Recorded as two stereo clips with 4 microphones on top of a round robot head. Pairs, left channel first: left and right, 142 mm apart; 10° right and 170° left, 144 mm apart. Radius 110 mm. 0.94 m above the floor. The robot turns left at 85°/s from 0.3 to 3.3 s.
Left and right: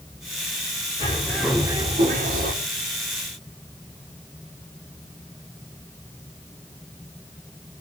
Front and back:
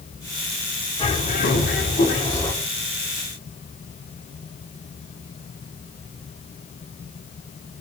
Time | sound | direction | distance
1.0 | a bird | 40° left | 3.5 m